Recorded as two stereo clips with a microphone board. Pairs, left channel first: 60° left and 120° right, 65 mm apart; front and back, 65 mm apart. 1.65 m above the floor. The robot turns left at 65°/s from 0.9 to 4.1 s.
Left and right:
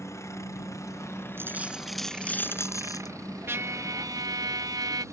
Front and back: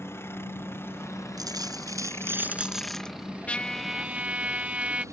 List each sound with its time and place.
0.0 s a helicopter: 35° left; by 5.2 s 150° right
1.4 s a dropped coin: 175° right; by 3.1 s 75° left
3.5 s a trumpet: 70° right; by 5.0 s 110° right